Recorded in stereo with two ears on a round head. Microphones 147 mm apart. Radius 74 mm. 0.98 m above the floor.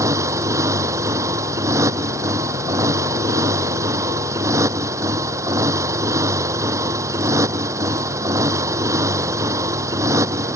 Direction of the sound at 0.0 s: 20° right (ahead or behind).